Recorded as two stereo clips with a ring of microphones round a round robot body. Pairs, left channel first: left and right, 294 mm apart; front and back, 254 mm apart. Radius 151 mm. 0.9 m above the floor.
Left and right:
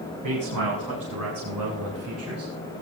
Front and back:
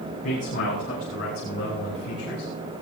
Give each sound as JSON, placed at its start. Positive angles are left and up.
{"t": 0.2, "sound": "a man speaking", "azimuth_deg": -65, "distance_m": 7.5}